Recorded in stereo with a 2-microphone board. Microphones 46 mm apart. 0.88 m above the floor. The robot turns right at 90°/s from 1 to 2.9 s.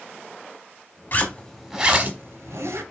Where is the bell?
No bell in this recording.